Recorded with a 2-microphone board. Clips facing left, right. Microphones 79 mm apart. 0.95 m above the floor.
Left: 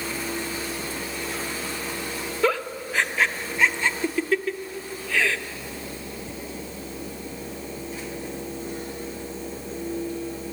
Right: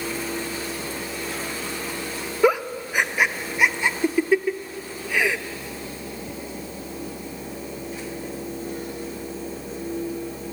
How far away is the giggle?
About 0.6 m.